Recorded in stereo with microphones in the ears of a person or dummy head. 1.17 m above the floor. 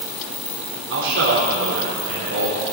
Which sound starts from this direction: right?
A man speaking, at 0.9 s.